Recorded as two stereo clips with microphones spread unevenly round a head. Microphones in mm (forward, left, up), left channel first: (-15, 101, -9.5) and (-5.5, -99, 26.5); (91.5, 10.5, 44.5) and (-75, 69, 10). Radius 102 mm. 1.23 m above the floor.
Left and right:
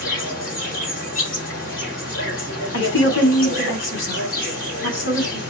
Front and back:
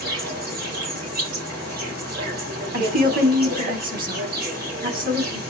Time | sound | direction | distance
0.0 | an insect | 135° left | 4.5 m
2.7 | a woman speaking | 120° left | 3 m